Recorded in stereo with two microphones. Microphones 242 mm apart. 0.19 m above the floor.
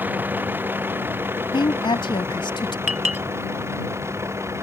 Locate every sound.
0.0 s a vehicle: 5° right (ahead or behind); by 4.6 s 10° right (ahead or behind)
1.5 s a woman speaking: 20° left (ahead or behind)
2.9 s a clink: 70° right (ahead or behind)